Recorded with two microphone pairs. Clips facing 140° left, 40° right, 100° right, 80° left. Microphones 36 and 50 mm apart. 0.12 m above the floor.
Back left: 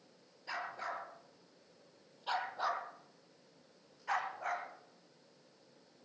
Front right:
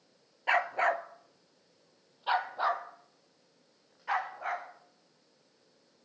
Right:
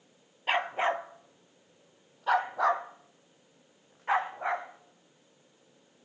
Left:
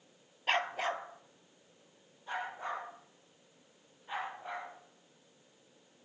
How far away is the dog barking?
About 0.5 m.